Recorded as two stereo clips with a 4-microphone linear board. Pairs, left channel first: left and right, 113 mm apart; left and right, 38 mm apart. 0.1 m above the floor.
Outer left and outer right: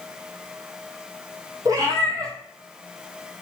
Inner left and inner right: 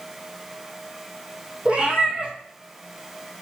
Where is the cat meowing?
30° right (ahead or behind), 1.7 m.